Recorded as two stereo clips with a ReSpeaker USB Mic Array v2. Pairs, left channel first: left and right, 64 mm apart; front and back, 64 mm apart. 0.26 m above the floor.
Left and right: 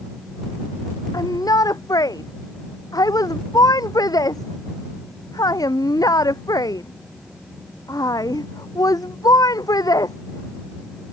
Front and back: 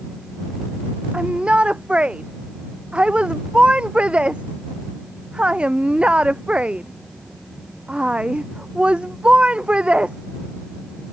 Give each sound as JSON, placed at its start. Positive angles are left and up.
{"t": 1.1, "sound": "a shout", "azimuth_deg": 105}